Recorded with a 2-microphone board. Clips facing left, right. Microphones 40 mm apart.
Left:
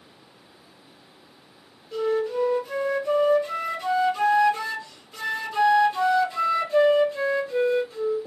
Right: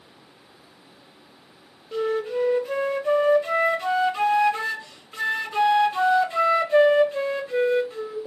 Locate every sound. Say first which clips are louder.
1.9 s a flute: even; 30° right (ahead or behind), 0.7 m